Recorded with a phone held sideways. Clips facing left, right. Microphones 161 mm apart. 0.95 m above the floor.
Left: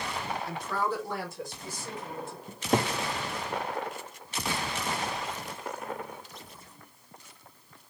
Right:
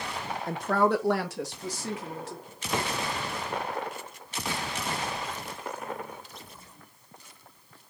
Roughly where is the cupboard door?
Left.